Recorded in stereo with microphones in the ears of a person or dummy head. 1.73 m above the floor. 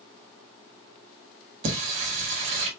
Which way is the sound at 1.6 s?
40° right (ahead or behind).